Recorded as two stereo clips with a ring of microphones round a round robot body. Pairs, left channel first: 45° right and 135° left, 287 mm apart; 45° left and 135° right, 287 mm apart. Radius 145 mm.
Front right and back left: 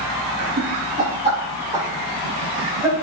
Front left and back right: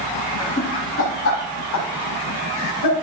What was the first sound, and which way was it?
Laughter, 115° left.